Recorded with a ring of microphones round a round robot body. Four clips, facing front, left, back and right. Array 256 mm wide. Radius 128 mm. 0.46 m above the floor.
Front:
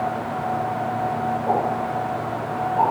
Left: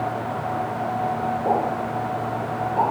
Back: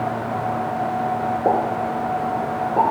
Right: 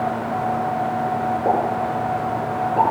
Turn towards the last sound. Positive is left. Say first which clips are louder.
# right 2 dB, back 3 dB
turn(degrees=-160)